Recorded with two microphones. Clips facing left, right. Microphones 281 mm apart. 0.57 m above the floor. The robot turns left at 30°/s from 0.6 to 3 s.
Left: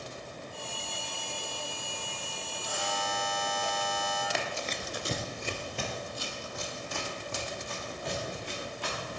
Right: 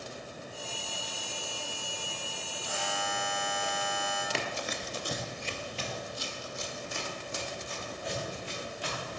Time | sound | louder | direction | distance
2.6 | a buzzer | left 1 dB | 50° left (ahead or behind) | 2.5 m
4.3 | running footsteps | even | 35° right (ahead or behind) | 0.7 m